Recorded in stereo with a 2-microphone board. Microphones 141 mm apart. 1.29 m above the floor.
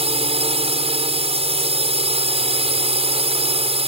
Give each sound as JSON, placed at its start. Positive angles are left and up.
{"t": 0.0, "sound": "a drone", "side_deg": -50}